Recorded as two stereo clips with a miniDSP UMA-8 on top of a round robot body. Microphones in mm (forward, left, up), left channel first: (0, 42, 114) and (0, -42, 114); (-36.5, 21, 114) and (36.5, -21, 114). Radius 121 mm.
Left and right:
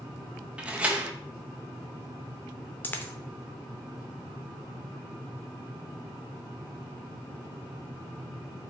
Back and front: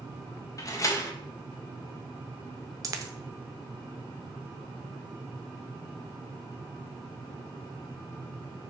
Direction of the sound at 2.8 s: 20° left.